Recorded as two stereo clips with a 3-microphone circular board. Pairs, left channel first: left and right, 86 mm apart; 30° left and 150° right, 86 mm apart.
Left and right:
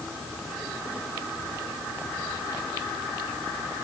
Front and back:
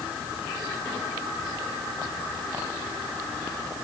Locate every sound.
Only background noise.